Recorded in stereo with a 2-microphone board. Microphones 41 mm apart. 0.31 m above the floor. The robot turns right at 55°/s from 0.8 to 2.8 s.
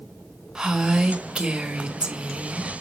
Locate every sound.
0.6 s a woman speaking: 20° right (ahead or behind), 1.1 m; by 2.7 s 10° right (ahead or behind), 1.1 m